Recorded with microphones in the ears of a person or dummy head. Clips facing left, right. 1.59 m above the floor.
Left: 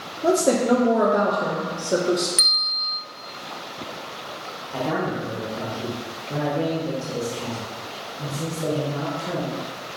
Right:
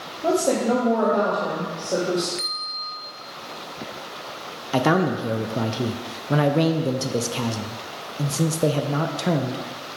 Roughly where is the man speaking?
Right.